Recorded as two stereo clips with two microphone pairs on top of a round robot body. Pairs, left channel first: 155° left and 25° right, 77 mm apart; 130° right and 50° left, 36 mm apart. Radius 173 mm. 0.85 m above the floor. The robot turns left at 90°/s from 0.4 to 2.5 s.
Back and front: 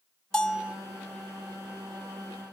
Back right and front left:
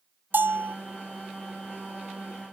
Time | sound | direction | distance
0.3 | a bell | 75° left | 0.7 m